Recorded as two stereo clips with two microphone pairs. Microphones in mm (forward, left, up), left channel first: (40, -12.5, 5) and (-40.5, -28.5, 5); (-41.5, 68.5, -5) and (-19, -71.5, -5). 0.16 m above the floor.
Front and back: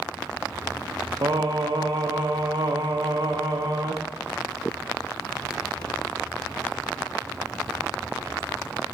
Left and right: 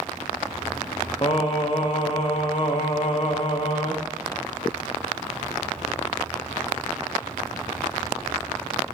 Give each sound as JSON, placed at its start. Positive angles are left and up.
{"t": 1.2, "sound": "singing", "azimuth_deg": 150, "distance_m": 2.5}